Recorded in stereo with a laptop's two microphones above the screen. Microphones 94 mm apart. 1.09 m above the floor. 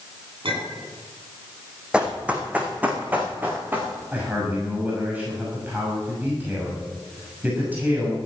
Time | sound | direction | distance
0.4 | a clink | 65° right (ahead or behind) | 9 m
1.9 | running footsteps | 10° right (ahead or behind) | 3 m
4.1 | a man speaking | 20° right (ahead or behind) | 6 m